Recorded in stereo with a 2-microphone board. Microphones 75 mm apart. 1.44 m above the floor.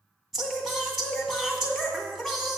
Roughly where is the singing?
Centre.